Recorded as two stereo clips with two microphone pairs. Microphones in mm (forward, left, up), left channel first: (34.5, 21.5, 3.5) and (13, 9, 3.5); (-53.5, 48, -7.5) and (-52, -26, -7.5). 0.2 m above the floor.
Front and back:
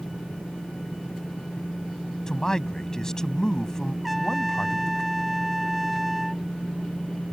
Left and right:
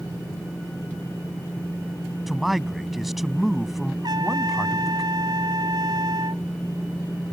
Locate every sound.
2.3 s a man speaking: 5° right
4.0 s a trumpet: 65° right